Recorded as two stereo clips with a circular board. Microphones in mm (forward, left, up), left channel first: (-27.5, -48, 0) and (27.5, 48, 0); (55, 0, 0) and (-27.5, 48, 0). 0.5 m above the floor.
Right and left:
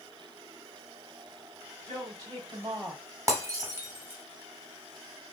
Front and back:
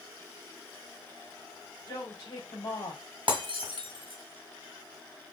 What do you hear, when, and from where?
1.9 s a woman speaking: 20° left, 2.5 m; by 3.0 s straight ahead, 2.5 m
3.3 s breaking glass: 125° left, 1.3 m